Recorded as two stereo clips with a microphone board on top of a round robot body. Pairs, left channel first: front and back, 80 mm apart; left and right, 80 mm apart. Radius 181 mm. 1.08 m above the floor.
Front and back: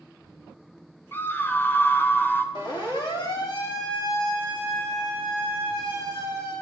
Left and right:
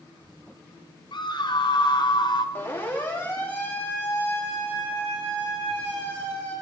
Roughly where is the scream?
Ahead left.